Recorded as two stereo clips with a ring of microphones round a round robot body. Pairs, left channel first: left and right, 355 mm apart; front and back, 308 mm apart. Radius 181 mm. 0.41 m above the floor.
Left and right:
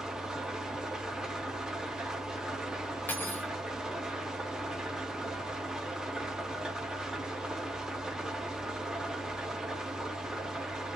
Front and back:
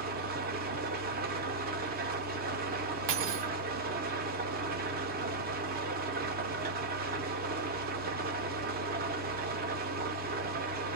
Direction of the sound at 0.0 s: 175° right.